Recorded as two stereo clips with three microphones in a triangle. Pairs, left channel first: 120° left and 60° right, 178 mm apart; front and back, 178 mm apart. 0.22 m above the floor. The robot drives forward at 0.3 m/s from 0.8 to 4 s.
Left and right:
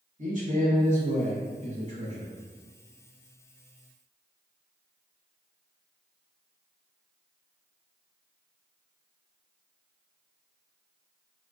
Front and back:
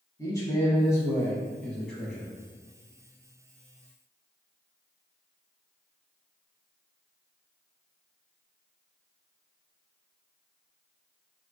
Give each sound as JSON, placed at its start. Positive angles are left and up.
{"t": 0.2, "sound": "a man speaking", "azimuth_deg": -65, "distance_m": 1.4}